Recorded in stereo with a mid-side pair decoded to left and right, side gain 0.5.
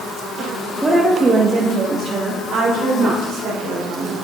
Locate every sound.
0.8 s a woman speaking: 15° right, 1.0 m; by 4.2 s 65° right, 3.5 m